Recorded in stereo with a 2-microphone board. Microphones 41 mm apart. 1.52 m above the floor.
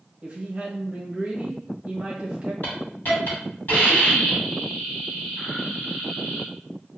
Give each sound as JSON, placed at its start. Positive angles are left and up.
{"t": 0.2, "sound": "a woman speaking", "side_deg": -30, "distance_m": 1.2}
{"t": 2.6, "sound": "a hiss", "side_deg": 50, "distance_m": 1.9}